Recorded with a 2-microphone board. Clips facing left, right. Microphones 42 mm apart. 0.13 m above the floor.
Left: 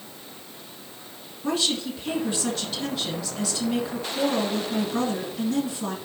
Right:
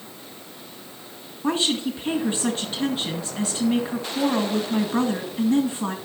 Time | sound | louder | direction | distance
1.4 | a woman speaking | right 3 dB | 35° right (ahead or behind) | 1.8 m